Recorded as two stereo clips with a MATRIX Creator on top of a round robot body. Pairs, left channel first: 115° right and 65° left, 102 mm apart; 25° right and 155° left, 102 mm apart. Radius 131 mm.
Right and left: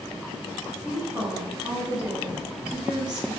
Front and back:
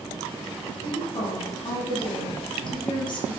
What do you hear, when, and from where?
0.8 s a woman speaking: 10° right, 1.8 m